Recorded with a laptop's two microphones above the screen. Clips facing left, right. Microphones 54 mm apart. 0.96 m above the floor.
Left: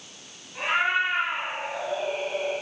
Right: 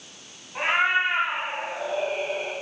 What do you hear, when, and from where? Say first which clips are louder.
0.6 s a cat meowing: right 2 dB; 45° right (ahead or behind), 2 m; by 2.5 s 60° right (ahead or behind), 4 m